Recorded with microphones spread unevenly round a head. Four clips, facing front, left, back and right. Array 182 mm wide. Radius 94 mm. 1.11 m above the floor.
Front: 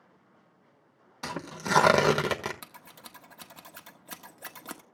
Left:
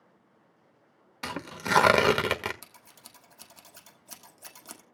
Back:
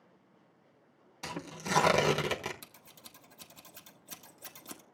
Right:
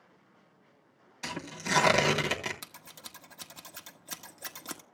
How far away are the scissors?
About 1.4 m.